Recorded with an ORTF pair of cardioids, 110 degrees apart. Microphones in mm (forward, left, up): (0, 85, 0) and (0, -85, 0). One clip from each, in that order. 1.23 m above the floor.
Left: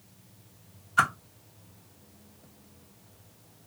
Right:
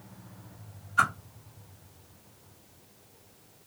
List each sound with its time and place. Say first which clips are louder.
1.0 s a whoosh: left 1 dB; 35° left, 0.9 m